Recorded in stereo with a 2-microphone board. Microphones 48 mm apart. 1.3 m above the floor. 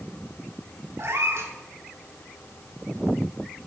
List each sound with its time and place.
1.0 s a cat meowing: 60° right (ahead or behind), 1.6 m